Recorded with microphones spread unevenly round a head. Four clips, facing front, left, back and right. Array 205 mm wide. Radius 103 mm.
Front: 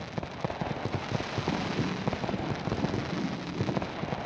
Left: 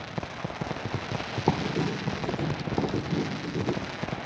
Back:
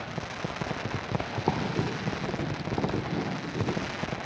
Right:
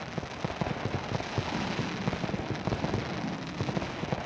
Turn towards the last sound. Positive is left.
turn(degrees=100)